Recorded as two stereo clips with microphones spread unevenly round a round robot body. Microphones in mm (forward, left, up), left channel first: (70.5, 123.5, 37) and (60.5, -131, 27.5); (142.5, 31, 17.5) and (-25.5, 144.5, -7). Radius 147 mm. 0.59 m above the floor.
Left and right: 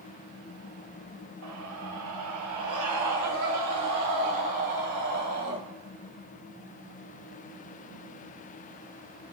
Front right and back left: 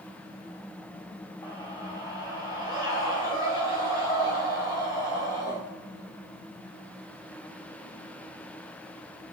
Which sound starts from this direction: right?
A scream, at 1.4 s.